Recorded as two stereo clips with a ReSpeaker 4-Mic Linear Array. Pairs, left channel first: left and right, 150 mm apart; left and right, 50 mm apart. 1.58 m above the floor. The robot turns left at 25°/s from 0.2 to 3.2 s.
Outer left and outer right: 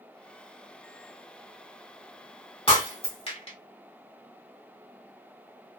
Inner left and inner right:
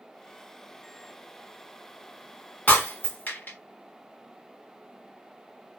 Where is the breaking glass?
35° left (ahead or behind), 1.4 m; by 3.6 s 45° left (ahead or behind), 1.4 m.